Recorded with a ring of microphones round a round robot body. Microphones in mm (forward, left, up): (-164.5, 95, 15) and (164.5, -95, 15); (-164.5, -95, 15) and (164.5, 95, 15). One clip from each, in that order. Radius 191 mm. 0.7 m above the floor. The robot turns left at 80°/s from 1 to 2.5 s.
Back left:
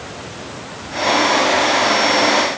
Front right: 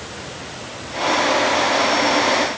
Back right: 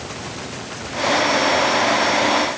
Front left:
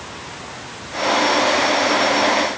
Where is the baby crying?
I don't hear a baby crying.